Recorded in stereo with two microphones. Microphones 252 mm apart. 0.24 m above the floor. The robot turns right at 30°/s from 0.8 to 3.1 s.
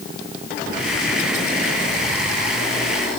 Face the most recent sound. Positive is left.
No sound to turn to.